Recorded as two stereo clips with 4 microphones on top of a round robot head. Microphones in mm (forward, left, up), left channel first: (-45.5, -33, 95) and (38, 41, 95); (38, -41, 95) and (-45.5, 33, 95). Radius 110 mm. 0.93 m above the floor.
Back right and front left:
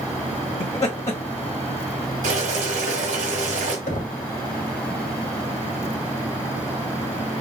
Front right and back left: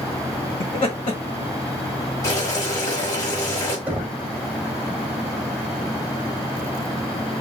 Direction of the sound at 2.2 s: 20° left.